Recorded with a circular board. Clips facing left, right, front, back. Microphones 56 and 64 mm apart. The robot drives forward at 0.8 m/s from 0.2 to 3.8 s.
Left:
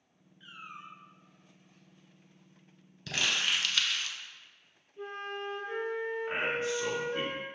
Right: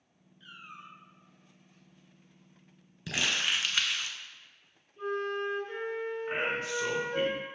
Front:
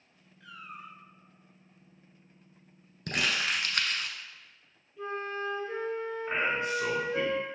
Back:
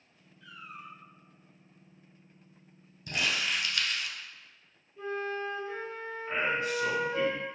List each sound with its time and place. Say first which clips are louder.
0.4 s a cat meowing: left 2 dB, front 1 dB; 20° left, 0.9 m; by 1.0 s 40° left, 0.5 m
3.1 s crumpling: even, front 1 dB; 10° right, 1.3 m; by 4.2 s 20° right, 0.8 m
5.0 s a flute: right 6 dB, back 1 dB; 160° left, 1.7 m
6.3 s a man speaking: even, even; 50° left, 1.8 m